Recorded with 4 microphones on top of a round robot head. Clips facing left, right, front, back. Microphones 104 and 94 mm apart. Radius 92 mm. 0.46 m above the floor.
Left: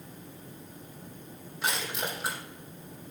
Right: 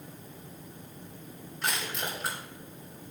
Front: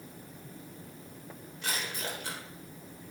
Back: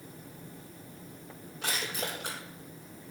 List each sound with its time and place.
1.6 s crushing: 175° left, 4.5 m